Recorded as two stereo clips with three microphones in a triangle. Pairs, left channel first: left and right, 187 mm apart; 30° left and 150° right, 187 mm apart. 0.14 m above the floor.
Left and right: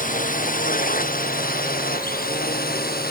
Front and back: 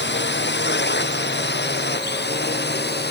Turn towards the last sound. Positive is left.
turn(degrees=55)